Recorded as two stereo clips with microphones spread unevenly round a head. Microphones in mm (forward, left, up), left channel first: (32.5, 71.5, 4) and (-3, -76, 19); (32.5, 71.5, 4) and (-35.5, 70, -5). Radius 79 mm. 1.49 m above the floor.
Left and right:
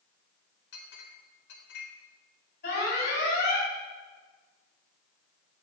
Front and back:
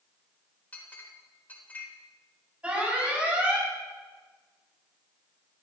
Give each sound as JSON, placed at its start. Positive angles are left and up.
{"t": 0.7, "sound": "a clink", "azimuth_deg": 65, "distance_m": 4.0}
{"t": 2.6, "sound": "an alarm", "azimuth_deg": 110, "distance_m": 8.5}